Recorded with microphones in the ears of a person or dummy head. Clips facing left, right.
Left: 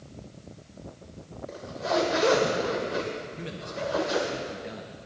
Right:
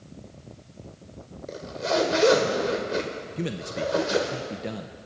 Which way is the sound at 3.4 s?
55° right (ahead or behind).